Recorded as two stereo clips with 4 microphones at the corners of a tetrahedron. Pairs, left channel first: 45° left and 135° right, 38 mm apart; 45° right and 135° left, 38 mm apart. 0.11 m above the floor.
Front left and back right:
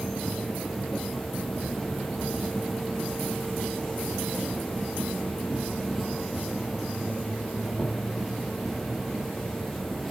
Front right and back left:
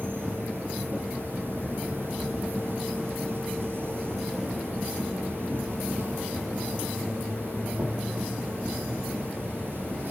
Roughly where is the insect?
Behind left.